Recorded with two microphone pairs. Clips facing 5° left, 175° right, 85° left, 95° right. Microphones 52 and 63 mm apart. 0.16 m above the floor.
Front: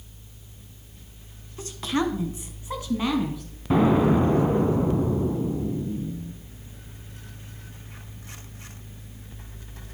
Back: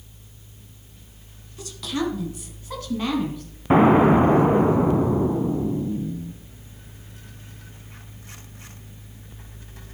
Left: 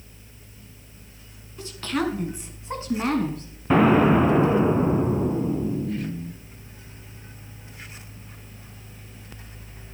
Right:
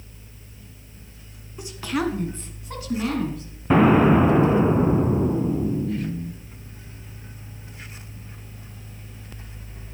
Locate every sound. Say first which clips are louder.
1.6 s a woman speaking: front 1 dB, right 1 dB; 35° right, 1.9 m; by 3.4 s 85° left, 2 m
3.7 s an explosion: back 5 dB, right 1 dB; 175° right, 0.6 m